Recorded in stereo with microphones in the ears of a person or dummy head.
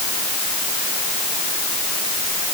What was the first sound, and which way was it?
Only background noise.